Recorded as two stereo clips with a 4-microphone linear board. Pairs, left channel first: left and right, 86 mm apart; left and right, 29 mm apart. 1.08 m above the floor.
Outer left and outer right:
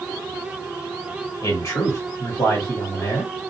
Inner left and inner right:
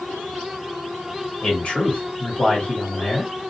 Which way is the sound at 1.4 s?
45° left (ahead or behind).